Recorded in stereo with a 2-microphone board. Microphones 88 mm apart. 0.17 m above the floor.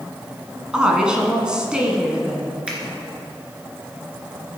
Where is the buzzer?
No buzzer in this recording.